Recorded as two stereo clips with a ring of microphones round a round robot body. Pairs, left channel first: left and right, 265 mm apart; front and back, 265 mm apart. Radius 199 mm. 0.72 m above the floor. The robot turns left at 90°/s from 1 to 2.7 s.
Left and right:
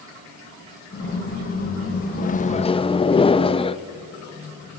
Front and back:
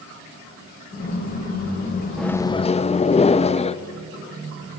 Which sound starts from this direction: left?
A microwave, at 2.2 s.